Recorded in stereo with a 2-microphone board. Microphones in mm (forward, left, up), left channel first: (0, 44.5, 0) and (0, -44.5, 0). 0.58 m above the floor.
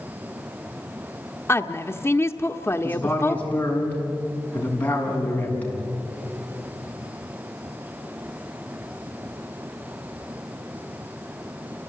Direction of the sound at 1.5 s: 30° left (ahead or behind).